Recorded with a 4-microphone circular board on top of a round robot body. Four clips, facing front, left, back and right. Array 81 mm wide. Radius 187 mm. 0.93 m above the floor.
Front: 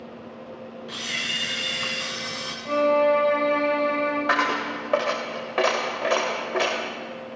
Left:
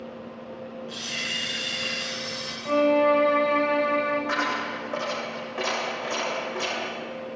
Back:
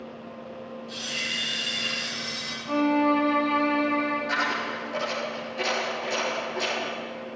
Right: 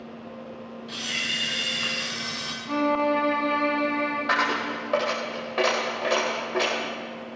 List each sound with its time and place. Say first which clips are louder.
0.9 s a camera shutter: right 1 dB, front 4 dB; 15° right, 1.6 m
2.6 s a violin: left 4 dB, front 3 dB; 75° left, 4 m
4.3 s a dropped coin: right 2 dB, front 4 dB; 20° right, 1.1 m